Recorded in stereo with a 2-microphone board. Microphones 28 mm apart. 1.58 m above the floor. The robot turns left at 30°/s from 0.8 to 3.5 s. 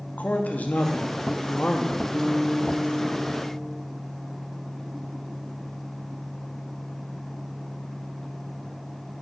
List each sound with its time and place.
0.2 s a man speaking: 70° left, 0.9 m; by 2.0 s 35° left, 0.9 m
2.1 s a guitar: 35° right, 2.5 m; by 3.8 s 80° right, 2.5 m